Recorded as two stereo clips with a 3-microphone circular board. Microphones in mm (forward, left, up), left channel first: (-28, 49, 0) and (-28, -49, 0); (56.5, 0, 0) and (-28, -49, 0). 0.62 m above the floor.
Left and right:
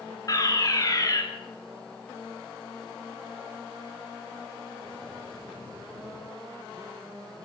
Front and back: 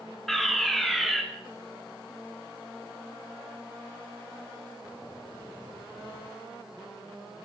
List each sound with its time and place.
0.3 s a fire alarm: 115° left, 2.5 m